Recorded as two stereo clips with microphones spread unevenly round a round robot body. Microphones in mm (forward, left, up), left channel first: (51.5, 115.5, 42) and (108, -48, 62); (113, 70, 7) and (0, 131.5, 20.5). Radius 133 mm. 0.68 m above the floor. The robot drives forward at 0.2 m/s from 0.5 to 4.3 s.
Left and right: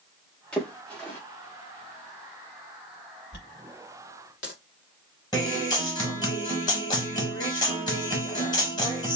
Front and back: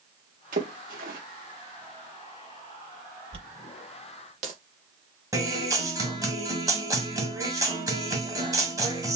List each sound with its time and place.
0.5 s a splash: 170° right, 0.6 m
3.3 s a dropped coin: 145° left, 0.6 m; by 4.5 s 155° left, 0.7 m
5.3 s a guitar: 95° left, 1.3 m